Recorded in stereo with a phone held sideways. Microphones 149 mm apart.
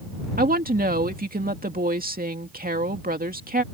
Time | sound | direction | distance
0.4 | a woman speaking | 70° right (ahead or behind) | ?